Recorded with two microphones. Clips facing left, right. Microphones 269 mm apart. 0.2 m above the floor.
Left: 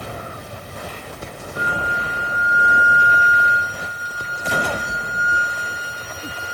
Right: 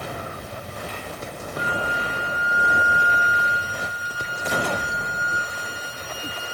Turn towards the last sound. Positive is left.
turn(degrees=-45)  # may be behind; listen again after turning